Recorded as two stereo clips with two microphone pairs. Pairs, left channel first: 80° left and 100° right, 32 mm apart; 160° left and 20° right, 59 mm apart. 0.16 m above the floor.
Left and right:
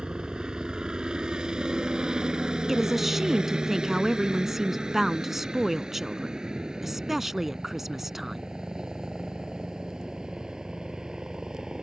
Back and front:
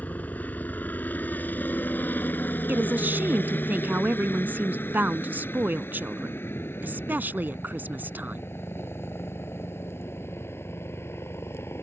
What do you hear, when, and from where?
0.0 s a helicopter: 150° right; by 11.8 s 160° right
2.7 s a woman speaking: 25° right